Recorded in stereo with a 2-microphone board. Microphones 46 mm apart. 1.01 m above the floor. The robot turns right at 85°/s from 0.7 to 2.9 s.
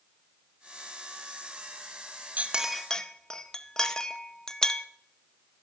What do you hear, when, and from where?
2.4 s a clink: 30° right (ahead or behind), 0.8 m; by 4.8 s 15° left (ahead or behind), 0.8 m